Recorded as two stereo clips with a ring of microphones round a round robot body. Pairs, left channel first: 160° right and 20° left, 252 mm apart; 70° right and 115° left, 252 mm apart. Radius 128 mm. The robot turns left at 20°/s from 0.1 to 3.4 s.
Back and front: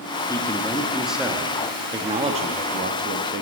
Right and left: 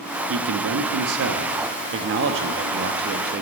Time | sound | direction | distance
0.3 | a man speaking | 125° left | 0.8 m